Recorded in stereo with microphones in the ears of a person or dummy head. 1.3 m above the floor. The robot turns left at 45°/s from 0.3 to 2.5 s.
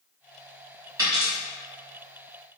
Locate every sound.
1.0 s a dropped coin: 20° right (ahead or behind), 1.7 m; by 1.3 s 30° right (ahead or behind), 1.7 m